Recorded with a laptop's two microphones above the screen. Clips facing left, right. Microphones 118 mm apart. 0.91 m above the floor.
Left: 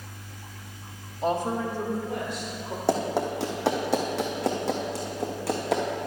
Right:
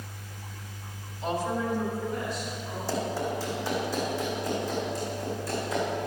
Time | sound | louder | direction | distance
1.2 | a woman speaking | left 3 dB | 40° left (ahead or behind) | 1.7 m
2.9 | running footsteps | left 5 dB | 65° left (ahead or behind) | 2.5 m